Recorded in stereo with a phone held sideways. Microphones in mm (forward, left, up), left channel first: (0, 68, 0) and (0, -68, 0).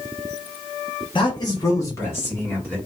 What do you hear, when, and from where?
1.1 s a man speaking: 35° left (ahead or behind), 0.9 m; by 2.8 s 15° left (ahead or behind), 1.7 m